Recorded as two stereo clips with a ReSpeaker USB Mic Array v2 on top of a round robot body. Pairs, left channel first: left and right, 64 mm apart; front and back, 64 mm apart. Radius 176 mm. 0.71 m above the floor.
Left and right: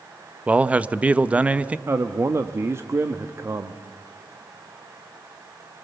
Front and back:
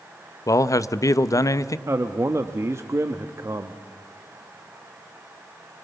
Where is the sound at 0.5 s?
20° right, 0.9 m.